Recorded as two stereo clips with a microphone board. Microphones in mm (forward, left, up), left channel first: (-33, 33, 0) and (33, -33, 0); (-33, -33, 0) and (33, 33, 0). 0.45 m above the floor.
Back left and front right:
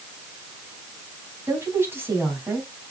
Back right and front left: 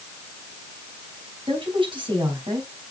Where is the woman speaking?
20° left, 4 m.